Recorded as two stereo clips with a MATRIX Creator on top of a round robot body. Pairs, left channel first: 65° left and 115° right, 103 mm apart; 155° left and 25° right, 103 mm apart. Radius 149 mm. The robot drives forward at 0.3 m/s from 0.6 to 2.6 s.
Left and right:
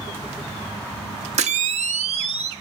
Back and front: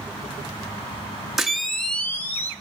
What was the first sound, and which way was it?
A camera shutter, 110° right.